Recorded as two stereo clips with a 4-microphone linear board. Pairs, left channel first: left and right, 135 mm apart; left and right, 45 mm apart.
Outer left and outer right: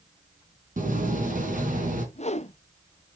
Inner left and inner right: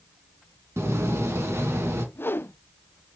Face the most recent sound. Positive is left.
turn(degrees=55)  # may be behind; listen again after turning